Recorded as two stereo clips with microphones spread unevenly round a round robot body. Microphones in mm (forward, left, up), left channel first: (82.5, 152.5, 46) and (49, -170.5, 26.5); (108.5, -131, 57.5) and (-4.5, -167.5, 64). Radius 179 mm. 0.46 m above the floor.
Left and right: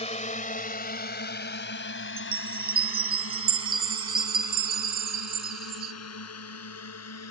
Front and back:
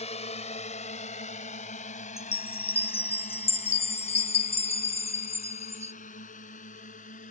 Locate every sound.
0.0 s a drone: 15° left; by 7.3 s 40° left
2.2 s a chime: 30° right